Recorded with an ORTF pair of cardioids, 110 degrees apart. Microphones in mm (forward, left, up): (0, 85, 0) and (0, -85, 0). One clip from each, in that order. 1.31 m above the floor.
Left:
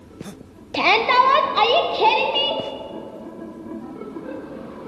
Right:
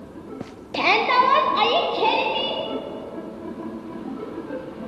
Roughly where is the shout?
Ahead.